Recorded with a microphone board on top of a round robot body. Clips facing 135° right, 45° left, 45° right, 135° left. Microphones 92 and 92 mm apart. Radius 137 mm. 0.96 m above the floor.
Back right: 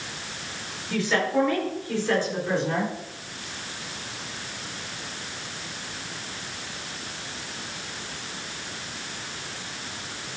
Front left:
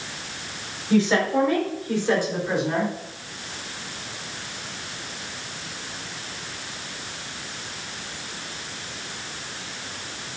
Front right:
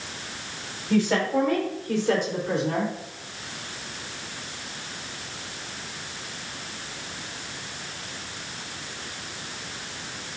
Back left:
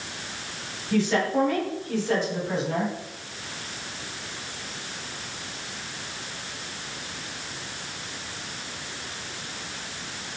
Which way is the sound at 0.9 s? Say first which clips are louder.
Front left 4 dB, front right 1 dB; 15° right.